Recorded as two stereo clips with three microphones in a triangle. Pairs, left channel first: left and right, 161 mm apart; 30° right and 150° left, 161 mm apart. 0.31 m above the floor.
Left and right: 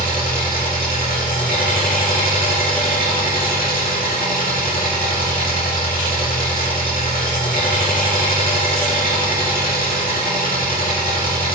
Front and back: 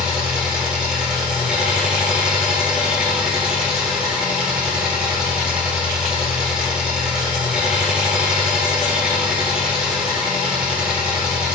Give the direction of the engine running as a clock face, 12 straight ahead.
10 o'clock.